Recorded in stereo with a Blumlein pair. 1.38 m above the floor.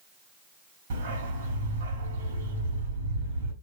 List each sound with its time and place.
0.9 s a dog barking: 60° right, 3.5 m